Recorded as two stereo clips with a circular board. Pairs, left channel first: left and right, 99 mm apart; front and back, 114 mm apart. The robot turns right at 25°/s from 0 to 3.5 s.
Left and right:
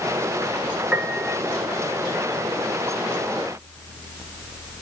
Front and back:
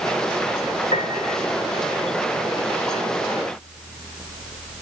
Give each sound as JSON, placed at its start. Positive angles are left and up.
{"t": 0.9, "sound": "a piano", "azimuth_deg": -10, "distance_m": 2.5}